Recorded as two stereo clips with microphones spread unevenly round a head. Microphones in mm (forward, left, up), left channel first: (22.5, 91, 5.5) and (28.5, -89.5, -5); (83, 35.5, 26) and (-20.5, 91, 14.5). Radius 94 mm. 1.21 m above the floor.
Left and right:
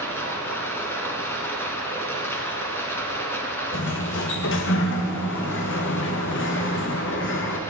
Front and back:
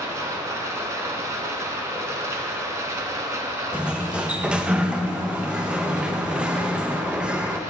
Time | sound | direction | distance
0.0 | running water | 125° left | 1.1 m
3.7 | a sliding door | 70° left | 0.8 m